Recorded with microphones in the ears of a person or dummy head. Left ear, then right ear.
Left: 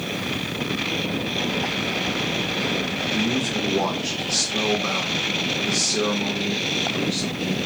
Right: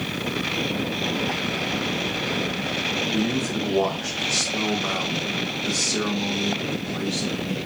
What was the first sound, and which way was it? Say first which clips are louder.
A man speaking: left 2 dB; 5° right (ahead or behind).